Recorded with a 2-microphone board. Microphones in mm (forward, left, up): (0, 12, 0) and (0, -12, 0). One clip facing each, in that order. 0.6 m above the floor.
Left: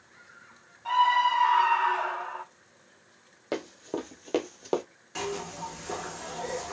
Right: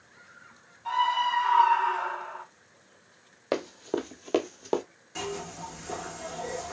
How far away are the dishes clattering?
No dishes clattering in this recording.